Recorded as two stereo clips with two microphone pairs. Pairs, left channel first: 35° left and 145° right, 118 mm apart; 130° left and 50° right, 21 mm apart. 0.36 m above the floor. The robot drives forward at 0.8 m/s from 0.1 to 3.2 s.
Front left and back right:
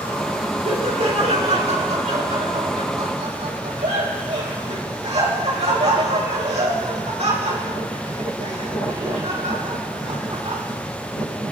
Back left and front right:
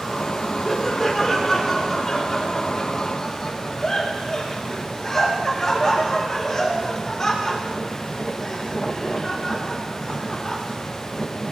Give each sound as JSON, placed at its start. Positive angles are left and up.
{"t": 0.7, "sound": "laughter", "azimuth_deg": -145, "distance_m": 3.5}